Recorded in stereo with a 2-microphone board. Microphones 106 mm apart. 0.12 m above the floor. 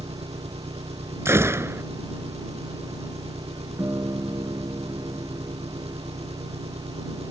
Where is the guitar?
25° right (ahead or behind).